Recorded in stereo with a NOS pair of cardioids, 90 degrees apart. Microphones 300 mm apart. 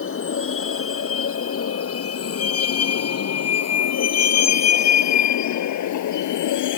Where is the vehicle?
45° left; by 6.8 s 80° left.